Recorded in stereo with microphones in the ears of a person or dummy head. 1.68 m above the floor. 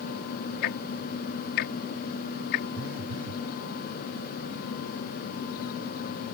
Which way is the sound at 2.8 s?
55° right (ahead or behind).